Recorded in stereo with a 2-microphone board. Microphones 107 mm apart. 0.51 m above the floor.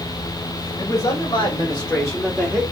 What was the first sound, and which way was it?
A man speaking, 60° left (ahead or behind).